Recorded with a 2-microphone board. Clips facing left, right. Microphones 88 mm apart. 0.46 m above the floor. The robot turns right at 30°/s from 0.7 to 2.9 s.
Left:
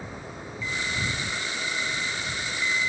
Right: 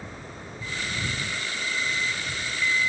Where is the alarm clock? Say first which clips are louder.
Left 2 dB; 90° left; by 2.9 s 155° left.